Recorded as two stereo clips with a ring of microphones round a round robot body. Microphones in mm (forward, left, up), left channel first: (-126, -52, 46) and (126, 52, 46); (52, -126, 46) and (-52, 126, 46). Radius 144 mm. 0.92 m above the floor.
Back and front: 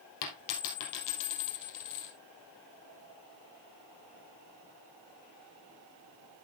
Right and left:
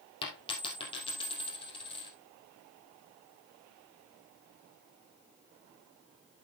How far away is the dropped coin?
About 2.5 m.